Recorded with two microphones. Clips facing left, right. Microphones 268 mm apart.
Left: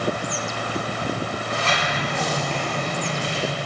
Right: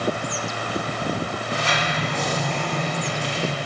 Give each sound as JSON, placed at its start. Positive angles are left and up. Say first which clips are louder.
{"t": 1.5, "sound": "a sliding door", "louder": "even", "side_deg": 60, "distance_m": 2.0}